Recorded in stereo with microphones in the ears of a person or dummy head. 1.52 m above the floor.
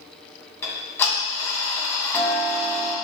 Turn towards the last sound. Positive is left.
turn(degrees=10)  # may be behind; listen again after turning